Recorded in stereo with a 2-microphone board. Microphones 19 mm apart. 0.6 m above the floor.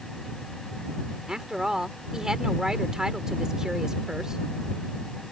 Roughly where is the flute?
No flute in this recording.